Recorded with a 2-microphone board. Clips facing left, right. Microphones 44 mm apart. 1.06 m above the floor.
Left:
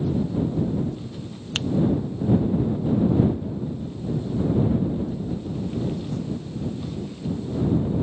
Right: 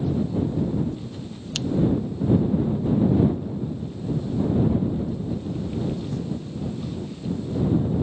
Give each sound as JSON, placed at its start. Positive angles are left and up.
{"t": 1.6, "sound": "a finger snap", "side_deg": 35}